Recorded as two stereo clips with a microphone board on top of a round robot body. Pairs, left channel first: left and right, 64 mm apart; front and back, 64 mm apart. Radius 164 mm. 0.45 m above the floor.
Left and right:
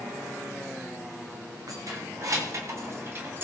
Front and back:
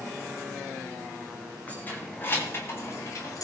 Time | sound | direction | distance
1.7 | keys jangling | 65° right | 3.5 m